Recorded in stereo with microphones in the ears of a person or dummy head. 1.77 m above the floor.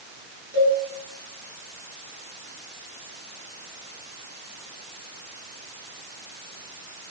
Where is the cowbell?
40° right (ahead or behind), 5.5 m.